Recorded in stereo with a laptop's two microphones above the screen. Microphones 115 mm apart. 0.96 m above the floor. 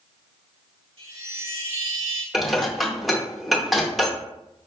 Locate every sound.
1.0 s a chime: 55° right (ahead or behind), 1.2 m
2.3 s dishes clattering: centre (ahead or behind), 0.6 m